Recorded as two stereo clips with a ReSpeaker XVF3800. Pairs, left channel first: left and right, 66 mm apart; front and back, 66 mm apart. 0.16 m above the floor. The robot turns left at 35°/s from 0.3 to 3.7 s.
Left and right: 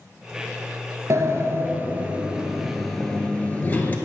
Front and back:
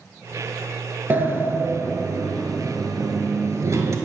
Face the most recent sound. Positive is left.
turn(degrees=150)